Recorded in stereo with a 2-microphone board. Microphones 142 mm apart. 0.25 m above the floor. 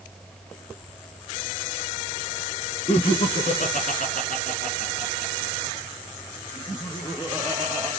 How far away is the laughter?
About 2.5 m.